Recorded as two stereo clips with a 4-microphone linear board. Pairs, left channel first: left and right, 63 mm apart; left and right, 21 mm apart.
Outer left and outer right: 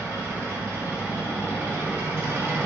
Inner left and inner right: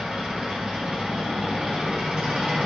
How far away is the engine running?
About 1.7 m.